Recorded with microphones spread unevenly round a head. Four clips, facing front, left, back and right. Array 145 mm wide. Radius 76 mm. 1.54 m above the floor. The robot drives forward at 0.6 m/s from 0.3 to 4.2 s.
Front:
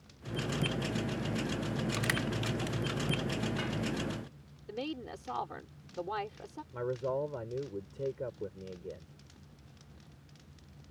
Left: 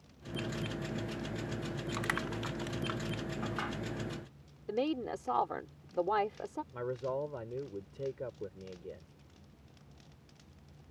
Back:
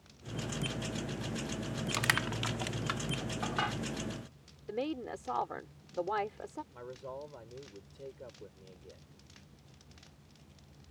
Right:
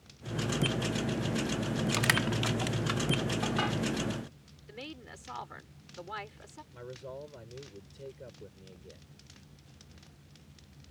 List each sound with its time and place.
1.9 s crushing: 140° right; by 3.8 s 160° right
4.7 s a woman speaking: 115° left
6.7 s a man speaking: 20° left